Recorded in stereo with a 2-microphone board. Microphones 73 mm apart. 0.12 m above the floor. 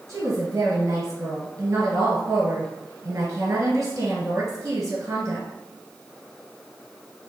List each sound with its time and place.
0.1 s a woman speaking: 30° right (ahead or behind), 1.3 m